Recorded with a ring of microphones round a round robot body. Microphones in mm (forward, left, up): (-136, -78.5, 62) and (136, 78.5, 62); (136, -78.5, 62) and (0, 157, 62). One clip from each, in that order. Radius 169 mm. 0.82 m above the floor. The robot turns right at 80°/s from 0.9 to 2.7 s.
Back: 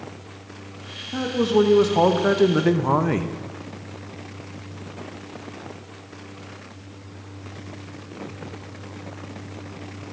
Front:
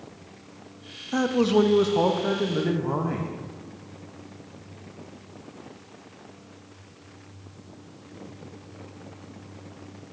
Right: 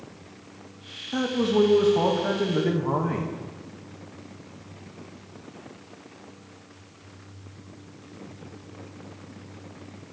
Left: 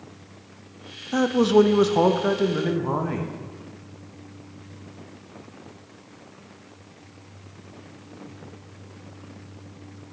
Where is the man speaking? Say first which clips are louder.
Back 1 dB, left 5 dB; 75° left, 0.5 m; by 3.3 s 160° right, 0.5 m.